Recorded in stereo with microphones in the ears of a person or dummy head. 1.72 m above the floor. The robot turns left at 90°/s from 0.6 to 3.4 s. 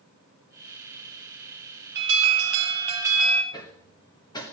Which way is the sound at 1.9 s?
70° right.